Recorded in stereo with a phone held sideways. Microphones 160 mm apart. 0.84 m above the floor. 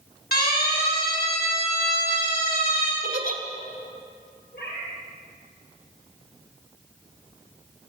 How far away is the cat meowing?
About 7.5 m.